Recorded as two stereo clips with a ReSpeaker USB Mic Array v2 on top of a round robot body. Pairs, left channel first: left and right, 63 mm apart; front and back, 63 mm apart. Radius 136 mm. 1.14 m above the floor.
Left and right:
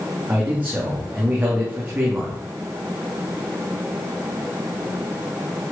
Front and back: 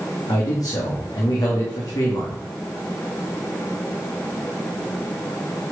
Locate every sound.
0.3 s a man speaking: 25° right, 3 m